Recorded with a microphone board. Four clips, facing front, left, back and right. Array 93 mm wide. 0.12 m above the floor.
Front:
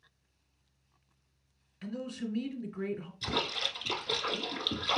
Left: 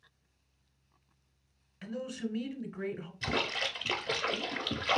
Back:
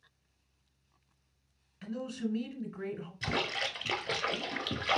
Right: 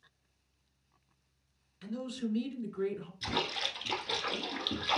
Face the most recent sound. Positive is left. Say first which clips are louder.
# left 2 dB, back 2 dB
turn(degrees=145)